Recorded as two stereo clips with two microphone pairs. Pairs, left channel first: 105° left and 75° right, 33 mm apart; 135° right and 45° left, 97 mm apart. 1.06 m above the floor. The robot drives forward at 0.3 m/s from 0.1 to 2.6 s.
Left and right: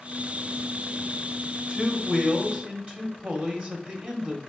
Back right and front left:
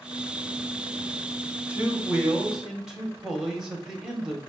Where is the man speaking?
30° right, 1.3 m; by 4.4 s 35° right, 1.1 m.